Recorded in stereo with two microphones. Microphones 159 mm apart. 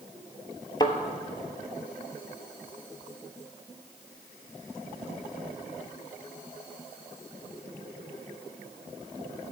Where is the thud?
25° left (ahead or behind), 0.6 m.